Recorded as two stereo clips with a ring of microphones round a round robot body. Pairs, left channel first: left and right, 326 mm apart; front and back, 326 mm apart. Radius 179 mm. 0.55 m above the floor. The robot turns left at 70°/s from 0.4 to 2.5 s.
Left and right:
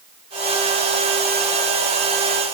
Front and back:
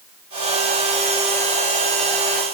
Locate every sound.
Only background noise.